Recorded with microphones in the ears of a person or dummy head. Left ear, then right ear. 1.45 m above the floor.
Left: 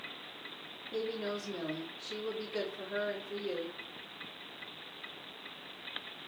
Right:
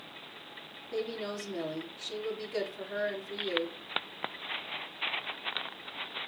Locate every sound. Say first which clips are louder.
0.9 s a woman speaking: right 1 dB; 80° right, 4 m